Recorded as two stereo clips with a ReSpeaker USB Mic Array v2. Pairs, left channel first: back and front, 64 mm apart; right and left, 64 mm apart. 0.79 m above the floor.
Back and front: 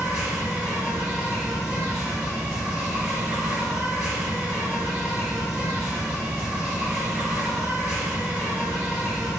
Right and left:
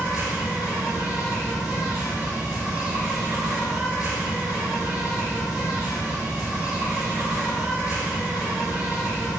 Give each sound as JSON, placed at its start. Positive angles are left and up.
{"t": 0.0, "sound": "an insect", "azimuth_deg": 45, "distance_m": 1.6}